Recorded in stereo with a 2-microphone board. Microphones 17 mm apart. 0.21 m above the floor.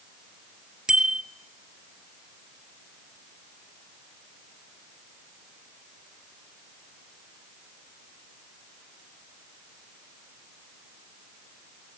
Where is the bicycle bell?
45° right (ahead or behind), 3 m.